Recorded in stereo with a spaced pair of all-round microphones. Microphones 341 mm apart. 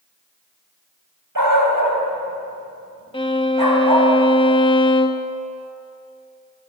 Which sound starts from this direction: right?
A dog barking, at 1.4 s.